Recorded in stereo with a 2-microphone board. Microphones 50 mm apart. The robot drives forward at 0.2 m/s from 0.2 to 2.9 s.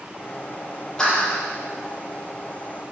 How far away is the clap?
About 4.5 m.